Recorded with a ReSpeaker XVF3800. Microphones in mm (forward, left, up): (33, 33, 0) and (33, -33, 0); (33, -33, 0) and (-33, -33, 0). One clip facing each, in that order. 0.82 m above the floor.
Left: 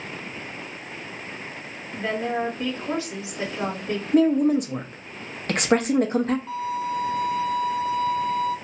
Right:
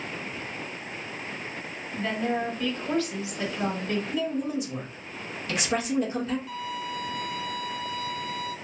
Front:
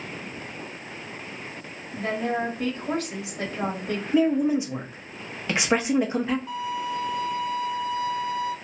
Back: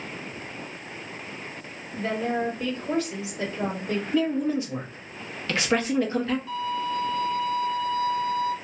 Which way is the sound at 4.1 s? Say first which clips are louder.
Left 10 dB, front 4 dB; 70° left.